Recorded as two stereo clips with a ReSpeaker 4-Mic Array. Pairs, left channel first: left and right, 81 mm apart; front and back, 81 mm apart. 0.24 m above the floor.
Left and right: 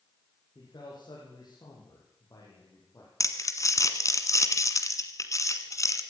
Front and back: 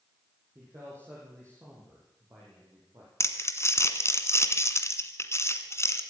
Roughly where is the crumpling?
Ahead left.